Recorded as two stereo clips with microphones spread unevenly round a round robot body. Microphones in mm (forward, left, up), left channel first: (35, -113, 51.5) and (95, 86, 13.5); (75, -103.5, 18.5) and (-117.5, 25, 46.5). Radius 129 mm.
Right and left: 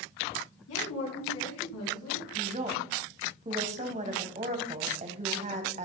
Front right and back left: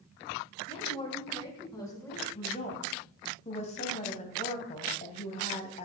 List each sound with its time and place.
0.7 s a woman speaking: 100° right, 5 m; by 2.2 s 110° right, 3.5 m
2.4 s a woman speaking: 25° left, 2 m